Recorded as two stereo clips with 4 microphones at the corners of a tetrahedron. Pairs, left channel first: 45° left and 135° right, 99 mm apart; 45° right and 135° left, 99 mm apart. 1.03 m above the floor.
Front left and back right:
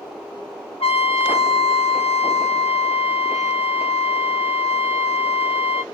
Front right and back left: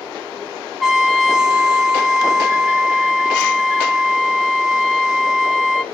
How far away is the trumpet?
About 1.5 m.